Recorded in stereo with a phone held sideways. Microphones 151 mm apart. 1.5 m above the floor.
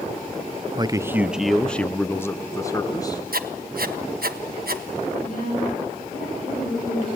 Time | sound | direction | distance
0.8 | a man speaking | 30° right (ahead or behind) | 0.7 m
3.3 | writing | 75° right (ahead or behind) | 1.3 m
5.1 | a woman speaking | 65° left (ahead or behind) | 7.5 m